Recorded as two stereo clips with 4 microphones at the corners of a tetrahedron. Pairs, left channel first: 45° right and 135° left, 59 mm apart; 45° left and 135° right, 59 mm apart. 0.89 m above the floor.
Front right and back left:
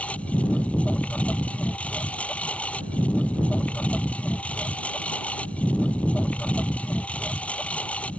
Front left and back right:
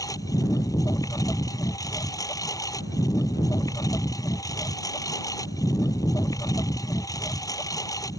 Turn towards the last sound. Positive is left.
turn(degrees=20)